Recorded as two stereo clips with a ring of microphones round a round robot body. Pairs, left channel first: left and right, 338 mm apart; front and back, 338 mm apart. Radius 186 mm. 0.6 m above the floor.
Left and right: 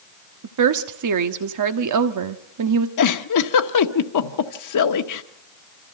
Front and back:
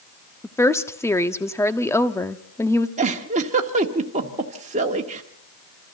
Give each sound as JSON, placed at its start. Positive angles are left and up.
{"t": 0.4, "sound": "a woman speaking", "azimuth_deg": -80, "distance_m": 1.1}
{"t": 3.0, "sound": "a giggle", "azimuth_deg": 110, "distance_m": 1.2}